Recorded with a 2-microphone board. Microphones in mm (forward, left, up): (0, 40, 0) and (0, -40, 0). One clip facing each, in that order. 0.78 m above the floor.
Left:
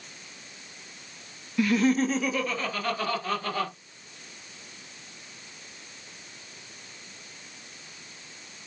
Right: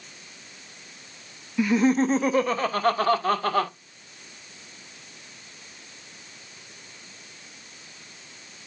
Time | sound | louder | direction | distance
1.6 | laughter | right 2 dB | 10° right (ahead or behind) | 0.6 m